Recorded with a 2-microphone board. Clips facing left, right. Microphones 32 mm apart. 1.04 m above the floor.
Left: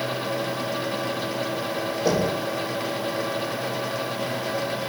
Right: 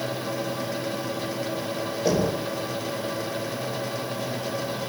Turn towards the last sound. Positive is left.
turn(degrees=5)  # may be behind; listen again after turning